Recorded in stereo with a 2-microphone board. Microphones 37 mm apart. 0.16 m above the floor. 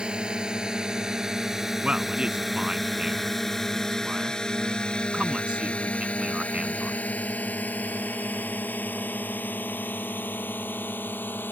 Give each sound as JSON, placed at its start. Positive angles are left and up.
{"t": 0.0, "sound": "a drone", "side_deg": -25}
{"t": 1.8, "sound": "a man speaking", "side_deg": -30}